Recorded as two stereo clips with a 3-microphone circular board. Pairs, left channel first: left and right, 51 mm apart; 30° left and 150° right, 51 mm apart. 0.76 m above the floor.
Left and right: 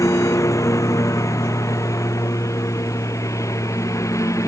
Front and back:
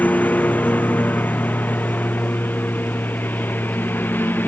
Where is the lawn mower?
90° left; by 4.5 s 80° left.